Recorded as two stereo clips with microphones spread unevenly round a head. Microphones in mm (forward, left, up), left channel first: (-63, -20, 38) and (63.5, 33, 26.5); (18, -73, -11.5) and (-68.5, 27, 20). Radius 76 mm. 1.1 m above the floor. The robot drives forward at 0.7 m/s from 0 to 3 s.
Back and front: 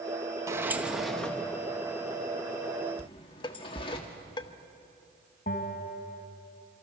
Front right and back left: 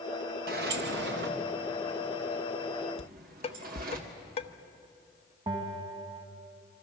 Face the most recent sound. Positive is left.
turn(degrees=175)